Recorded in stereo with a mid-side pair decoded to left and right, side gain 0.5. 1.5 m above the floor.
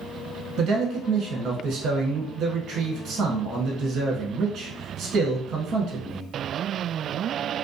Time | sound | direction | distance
0.6 | a man speaking | 70° right | 1.1 m